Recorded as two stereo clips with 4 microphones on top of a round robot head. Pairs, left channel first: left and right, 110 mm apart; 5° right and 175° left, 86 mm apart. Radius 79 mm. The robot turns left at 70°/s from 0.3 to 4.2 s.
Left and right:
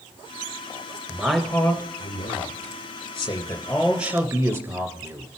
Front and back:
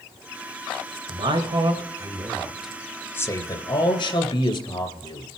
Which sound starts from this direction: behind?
A man speaking, at 1.1 s.